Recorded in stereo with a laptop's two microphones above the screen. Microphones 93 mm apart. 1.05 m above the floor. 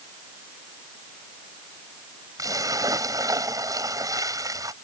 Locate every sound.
2.4 s a splash: 40° right (ahead or behind)